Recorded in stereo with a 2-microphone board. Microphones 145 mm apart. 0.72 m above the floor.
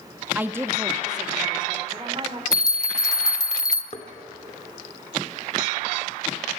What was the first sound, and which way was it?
A woman speaking, 10° right (ahead or behind).